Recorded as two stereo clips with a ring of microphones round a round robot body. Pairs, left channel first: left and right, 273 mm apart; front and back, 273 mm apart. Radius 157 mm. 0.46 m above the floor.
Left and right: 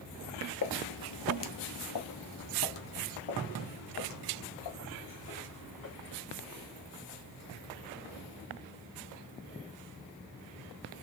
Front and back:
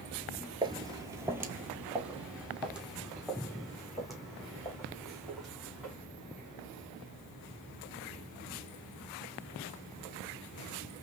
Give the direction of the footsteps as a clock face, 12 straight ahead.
8 o'clock.